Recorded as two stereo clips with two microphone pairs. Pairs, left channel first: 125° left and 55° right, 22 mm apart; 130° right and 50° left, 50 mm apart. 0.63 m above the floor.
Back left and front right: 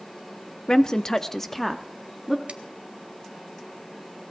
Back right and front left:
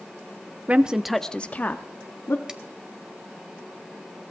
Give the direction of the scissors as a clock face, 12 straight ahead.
1 o'clock.